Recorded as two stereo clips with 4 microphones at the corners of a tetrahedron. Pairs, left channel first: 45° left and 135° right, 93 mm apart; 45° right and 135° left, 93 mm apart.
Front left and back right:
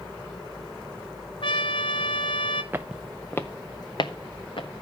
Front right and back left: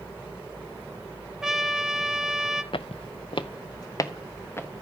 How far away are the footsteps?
About 0.7 m.